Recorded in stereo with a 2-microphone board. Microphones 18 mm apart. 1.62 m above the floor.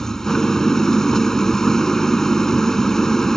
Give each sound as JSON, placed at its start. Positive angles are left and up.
{"t": 0.0, "sound": "an engine running", "side_deg": 30}